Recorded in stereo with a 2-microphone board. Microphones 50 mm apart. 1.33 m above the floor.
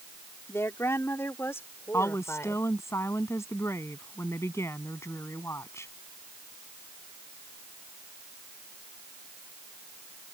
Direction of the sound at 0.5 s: 60° left (ahead or behind).